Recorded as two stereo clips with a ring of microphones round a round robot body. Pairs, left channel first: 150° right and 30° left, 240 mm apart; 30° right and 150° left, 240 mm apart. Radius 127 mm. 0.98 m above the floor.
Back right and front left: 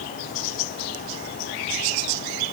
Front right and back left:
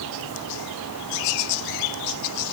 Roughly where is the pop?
No pop in this recording.